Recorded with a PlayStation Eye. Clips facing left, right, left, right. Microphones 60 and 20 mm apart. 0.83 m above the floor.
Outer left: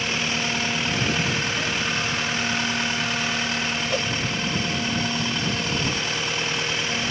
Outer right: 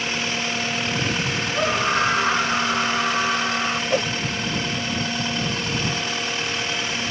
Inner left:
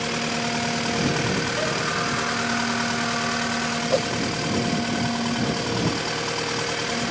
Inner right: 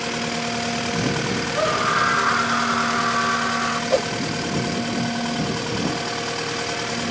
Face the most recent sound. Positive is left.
turn(degrees=-25)  # may be behind; listen again after turning